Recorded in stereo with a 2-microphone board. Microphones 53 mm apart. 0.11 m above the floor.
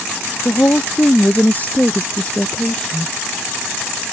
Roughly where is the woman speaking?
Left.